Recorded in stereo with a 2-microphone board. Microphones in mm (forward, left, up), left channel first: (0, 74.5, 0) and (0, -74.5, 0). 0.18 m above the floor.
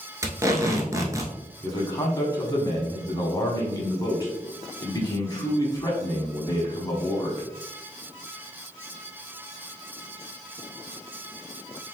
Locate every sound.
0.2 s tape being pulled: 20° right (ahead or behind), 0.8 m
1.6 s a man speaking: 25° left (ahead or behind), 1.3 m